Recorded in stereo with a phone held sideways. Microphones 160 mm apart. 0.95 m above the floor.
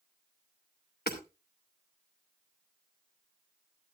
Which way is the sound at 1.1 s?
85° left.